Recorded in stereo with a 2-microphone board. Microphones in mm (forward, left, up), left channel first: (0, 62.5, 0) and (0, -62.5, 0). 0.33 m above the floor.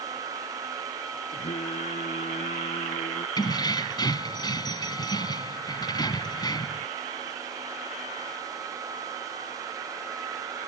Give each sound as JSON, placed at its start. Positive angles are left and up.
{"t": 1.3, "sound": "singing", "side_deg": 55}
{"t": 3.4, "sound": "keys jangling", "side_deg": 35}